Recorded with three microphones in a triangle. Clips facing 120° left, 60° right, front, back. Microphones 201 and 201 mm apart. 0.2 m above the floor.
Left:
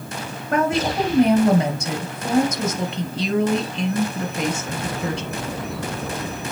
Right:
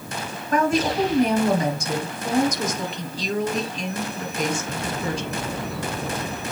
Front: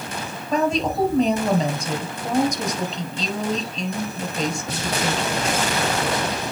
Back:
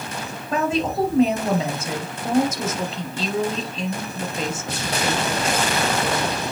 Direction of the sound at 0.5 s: 95° left.